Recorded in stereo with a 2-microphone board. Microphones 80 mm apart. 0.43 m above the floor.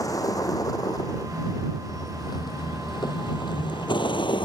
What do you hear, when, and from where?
0.0 s a vehicle: 45° left (ahead or behind); by 4.5 s 85° left